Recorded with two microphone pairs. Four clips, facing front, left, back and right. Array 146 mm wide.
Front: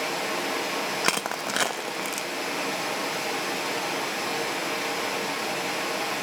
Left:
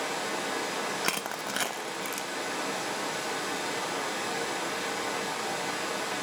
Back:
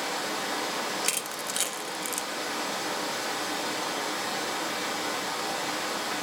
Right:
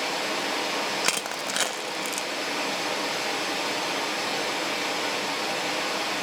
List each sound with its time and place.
0.0 s running water: 55° right, 3.5 m
1.0 s crushing: 5° right, 0.5 m